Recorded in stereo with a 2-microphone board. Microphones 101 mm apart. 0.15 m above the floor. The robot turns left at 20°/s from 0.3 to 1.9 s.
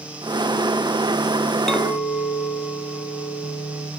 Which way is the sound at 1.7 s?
5° left (ahead or behind).